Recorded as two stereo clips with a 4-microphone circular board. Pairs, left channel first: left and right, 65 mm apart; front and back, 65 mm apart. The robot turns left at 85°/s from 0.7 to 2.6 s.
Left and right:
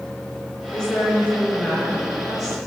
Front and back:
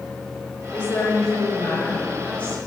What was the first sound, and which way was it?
A woman speaking, 75° left.